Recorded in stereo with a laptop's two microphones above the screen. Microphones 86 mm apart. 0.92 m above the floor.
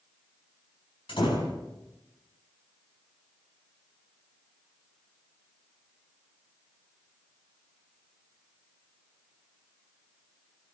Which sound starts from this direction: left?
A door slam, at 1.1 s.